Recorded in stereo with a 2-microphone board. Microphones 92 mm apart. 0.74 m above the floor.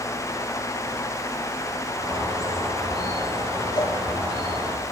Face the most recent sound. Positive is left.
turn(degrees=50)  # may be behind; listen again after turning